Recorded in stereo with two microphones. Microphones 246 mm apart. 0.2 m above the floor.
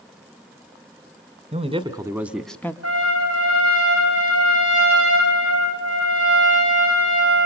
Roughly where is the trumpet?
Right.